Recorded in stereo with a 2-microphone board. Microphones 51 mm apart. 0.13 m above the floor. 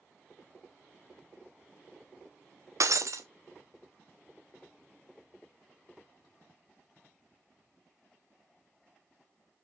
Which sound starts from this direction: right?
Breaking glass, at 2.8 s.